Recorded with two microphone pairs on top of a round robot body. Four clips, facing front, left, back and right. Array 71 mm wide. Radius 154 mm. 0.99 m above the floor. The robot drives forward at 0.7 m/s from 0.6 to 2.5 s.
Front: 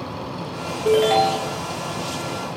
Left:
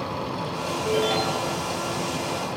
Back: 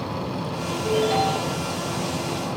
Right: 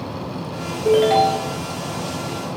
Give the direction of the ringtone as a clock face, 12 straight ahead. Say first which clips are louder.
Right 10 dB, front 5 dB; 1 o'clock.